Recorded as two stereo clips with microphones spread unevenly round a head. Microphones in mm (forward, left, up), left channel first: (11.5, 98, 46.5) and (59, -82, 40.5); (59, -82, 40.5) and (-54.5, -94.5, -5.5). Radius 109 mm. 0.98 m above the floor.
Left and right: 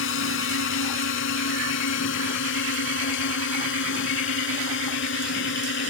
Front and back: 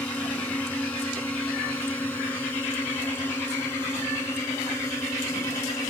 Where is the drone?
90° left; by 5.9 s 80° left.